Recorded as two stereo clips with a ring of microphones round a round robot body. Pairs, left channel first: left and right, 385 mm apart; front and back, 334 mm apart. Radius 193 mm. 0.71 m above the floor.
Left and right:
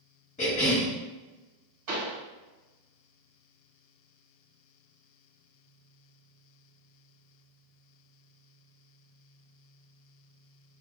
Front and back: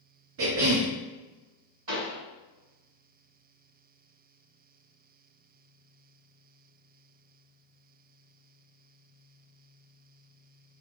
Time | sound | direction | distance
0.4 | a cough | 155° left | 0.5 m
1.9 | a pop | 135° right | 1.7 m